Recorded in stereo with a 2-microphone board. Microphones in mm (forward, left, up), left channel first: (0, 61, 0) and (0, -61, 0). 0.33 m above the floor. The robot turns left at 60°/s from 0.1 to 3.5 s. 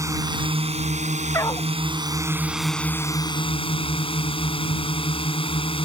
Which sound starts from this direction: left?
A dog barking, at 1.3 s.